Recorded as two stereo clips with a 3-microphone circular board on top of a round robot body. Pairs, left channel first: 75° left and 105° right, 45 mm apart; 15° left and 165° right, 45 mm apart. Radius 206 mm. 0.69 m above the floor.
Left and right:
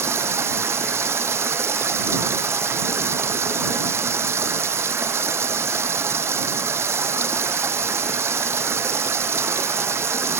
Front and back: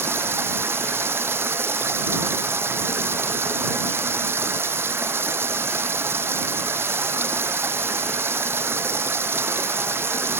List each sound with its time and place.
0.0 s running water: 130° right